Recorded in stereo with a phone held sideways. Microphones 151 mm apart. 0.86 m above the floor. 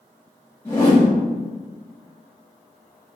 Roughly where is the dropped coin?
No dropped coin in this recording.